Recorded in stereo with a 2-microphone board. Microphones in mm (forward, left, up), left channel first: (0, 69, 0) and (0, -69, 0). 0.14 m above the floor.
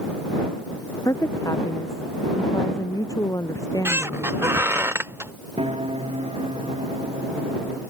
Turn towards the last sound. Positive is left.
turn(degrees=-45)  # may be behind; listen again after turning